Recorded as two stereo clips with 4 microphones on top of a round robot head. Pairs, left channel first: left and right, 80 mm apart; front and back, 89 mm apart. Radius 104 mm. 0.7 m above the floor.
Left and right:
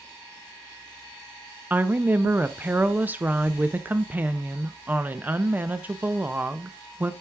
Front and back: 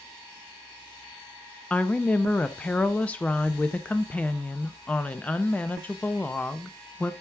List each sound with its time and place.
1.7 s a woman speaking: 55° right, 0.5 m